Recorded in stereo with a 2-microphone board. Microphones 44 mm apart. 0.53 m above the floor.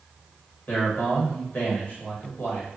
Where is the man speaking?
45° left (ahead or behind), 1.8 m.